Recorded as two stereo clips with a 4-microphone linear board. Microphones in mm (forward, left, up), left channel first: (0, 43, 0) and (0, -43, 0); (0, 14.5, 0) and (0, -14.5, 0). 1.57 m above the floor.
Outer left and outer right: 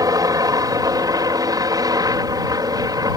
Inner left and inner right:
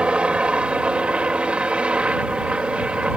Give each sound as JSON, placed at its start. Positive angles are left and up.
{"t": 0.0, "sound": "a helicopter", "side_deg": -45}